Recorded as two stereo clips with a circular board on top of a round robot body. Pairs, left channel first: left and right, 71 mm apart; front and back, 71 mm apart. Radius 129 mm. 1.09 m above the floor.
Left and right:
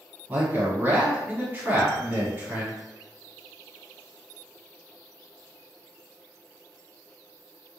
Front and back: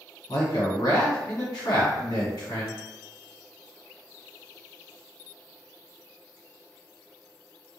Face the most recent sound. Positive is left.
turn(degrees=-25)